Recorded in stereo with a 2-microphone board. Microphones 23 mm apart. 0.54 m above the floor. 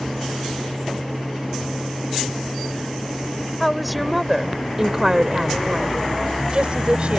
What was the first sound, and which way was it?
A woman speaking, 5° left (ahead or behind).